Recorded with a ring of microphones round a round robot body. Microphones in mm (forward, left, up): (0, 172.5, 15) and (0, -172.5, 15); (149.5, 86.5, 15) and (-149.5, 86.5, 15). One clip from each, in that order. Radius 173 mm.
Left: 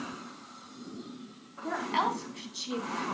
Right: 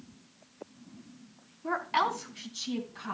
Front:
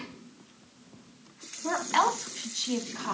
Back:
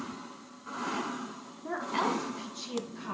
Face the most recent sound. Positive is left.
turn(degrees=20)